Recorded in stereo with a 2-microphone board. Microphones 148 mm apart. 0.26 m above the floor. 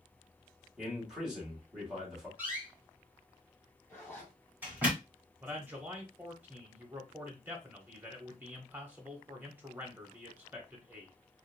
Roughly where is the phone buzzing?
No phone buzzing in this recording.